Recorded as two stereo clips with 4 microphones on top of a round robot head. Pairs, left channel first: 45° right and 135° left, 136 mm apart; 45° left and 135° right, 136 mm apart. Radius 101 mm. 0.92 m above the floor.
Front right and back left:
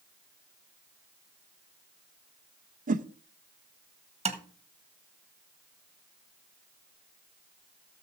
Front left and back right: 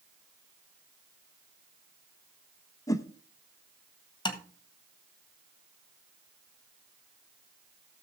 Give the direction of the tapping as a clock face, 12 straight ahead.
9 o'clock.